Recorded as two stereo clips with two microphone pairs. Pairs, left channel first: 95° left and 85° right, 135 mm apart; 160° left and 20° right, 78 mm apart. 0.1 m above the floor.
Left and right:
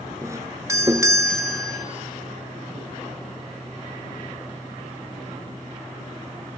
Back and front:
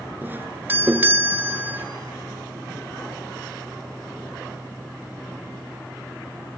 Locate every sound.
0.2 s a doorbell: 50° right, 1.8 m